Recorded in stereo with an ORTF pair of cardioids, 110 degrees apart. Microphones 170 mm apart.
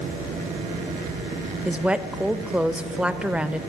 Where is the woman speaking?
5° right, 1.0 m.